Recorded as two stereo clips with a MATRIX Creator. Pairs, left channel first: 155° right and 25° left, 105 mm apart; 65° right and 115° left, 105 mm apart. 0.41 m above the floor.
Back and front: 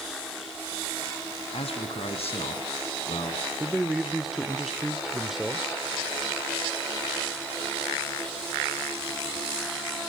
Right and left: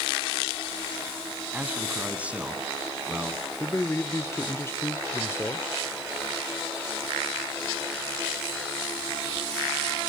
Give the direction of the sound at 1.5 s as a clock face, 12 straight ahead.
6 o'clock.